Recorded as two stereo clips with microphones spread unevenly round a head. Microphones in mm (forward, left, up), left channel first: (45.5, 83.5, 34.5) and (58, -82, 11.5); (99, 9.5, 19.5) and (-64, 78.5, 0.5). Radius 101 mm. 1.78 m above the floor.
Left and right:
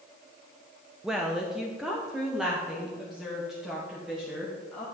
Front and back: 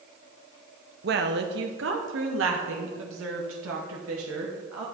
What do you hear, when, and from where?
1.0 s a woman speaking: straight behind, 0.8 m; by 4.8 s 175° right, 2.5 m